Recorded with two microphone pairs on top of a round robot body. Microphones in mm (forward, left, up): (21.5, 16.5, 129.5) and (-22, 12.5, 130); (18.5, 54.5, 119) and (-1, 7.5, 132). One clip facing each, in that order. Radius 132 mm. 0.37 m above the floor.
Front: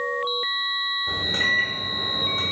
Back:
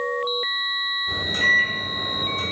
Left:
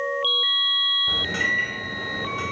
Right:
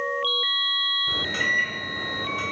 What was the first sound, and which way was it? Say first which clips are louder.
A microwave: back 4 dB, right 1 dB; 15° right.